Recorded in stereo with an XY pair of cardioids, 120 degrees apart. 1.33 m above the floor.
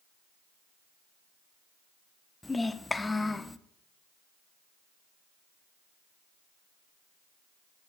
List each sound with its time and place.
2.4 s a child speaking: 15° left, 0.5 m